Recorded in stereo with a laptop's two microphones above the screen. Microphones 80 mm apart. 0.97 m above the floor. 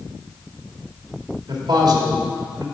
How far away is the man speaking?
About 2 m.